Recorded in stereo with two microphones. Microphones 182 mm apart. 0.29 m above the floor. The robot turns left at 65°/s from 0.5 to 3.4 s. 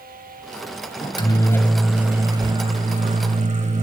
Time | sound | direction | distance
1.0 | a microwave | 55° left | 1.0 m